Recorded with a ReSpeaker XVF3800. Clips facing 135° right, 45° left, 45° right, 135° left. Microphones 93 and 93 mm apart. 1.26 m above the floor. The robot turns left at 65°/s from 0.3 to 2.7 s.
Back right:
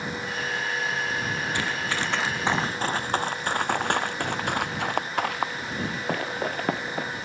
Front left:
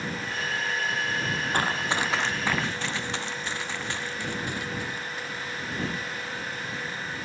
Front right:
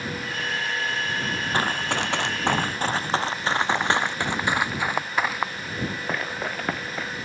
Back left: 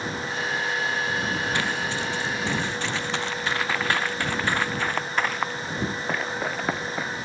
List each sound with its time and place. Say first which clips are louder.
1.5 s running footsteps: front left 2 dB, front right 2 dB; 5° left; by 7.1 s 145° right